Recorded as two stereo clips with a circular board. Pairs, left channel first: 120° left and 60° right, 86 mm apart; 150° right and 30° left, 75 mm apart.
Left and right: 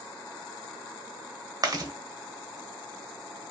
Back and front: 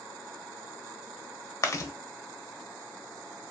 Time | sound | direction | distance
1.6 | chewing | 105° right | 0.6 m